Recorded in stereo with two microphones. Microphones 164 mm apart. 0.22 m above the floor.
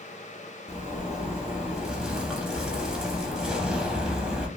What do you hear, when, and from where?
0.7 s a zipper: 5° right (ahead or behind), 0.7 m